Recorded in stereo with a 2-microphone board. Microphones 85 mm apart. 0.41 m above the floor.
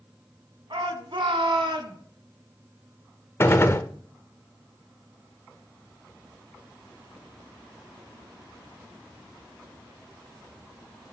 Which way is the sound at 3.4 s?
30° left (ahead or behind).